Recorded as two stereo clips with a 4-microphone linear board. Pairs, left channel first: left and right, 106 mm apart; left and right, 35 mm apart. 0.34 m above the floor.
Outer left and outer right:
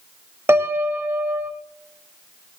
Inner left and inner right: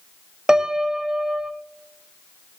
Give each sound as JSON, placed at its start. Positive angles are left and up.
{"t": 0.5, "sound": "a piano", "side_deg": -20, "distance_m": 1.0}